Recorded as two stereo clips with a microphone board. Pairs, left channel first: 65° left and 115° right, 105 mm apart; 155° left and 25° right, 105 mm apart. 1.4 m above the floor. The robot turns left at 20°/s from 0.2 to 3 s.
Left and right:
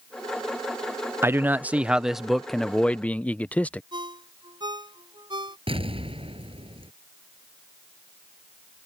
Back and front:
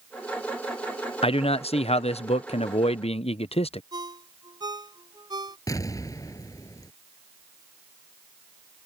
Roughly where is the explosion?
Behind right.